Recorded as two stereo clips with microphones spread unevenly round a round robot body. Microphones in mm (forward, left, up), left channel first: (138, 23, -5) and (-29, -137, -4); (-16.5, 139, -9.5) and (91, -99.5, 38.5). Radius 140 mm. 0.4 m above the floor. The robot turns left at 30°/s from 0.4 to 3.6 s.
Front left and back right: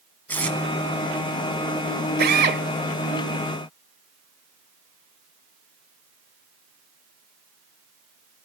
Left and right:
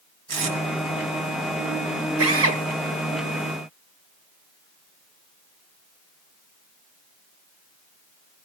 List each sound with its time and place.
0.3 s tape being pulled: 40° right, 3 m; by 0.6 s 45° right, 3 m
2.2 s a drill: 100° right, 1.9 m; by 2.6 s 115° right, 1.9 m